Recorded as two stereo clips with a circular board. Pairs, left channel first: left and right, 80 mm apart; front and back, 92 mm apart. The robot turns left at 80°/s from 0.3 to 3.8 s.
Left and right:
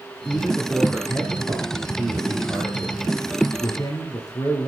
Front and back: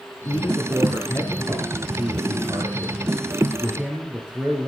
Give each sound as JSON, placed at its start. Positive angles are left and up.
{"t": 0.2, "sound": "a man speaking", "azimuth_deg": 25, "distance_m": 2.5}